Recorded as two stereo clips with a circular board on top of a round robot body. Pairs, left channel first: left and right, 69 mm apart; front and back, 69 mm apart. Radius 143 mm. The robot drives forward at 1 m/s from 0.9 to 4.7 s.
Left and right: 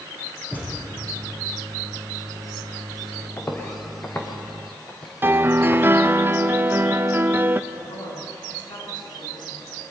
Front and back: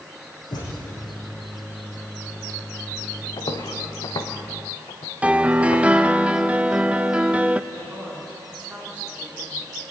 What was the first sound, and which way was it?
A thud, 20° left.